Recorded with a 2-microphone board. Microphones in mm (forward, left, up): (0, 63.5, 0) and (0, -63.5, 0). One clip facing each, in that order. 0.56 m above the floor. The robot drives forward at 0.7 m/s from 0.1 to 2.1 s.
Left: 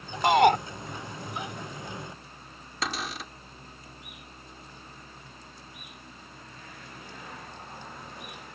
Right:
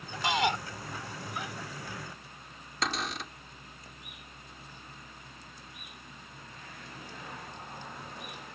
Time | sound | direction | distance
0.2 | a shout | 55° left (ahead or behind) | ?
2.8 | a cupboard door | centre (ahead or behind) | ?